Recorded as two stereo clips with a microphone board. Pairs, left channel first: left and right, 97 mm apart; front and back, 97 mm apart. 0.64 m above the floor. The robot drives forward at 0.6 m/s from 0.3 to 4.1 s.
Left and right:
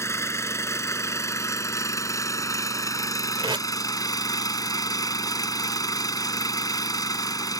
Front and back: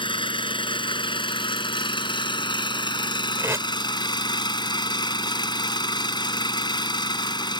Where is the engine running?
30° left; by 7.6 s 40° left.